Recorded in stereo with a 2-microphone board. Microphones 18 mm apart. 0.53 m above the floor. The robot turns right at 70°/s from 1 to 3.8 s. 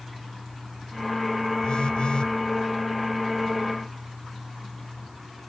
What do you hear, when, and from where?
1.6 s a phone buzzing: 70° left; by 2.3 s 120° left